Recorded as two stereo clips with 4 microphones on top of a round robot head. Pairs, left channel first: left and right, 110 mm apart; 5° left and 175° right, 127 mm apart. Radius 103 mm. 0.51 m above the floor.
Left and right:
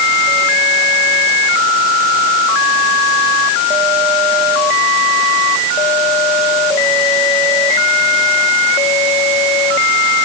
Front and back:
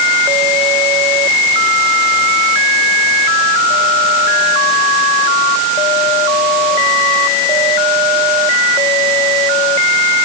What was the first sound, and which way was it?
Only background noise.